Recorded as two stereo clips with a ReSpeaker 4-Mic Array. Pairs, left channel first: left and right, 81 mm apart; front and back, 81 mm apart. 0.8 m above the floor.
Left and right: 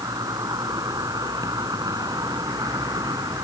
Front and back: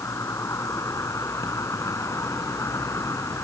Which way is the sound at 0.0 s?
50° right.